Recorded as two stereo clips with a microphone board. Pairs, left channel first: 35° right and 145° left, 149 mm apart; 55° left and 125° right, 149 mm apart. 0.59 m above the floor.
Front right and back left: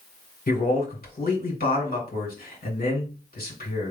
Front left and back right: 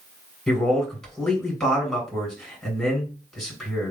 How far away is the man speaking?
About 2.5 m.